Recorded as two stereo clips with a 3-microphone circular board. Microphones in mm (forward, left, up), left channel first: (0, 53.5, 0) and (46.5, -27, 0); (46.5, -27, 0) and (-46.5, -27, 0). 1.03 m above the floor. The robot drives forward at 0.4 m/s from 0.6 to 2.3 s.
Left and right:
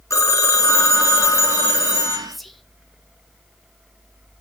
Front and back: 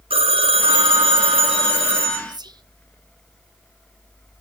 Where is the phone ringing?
175° left, 0.8 m; by 2.2 s straight behind, 1.4 m.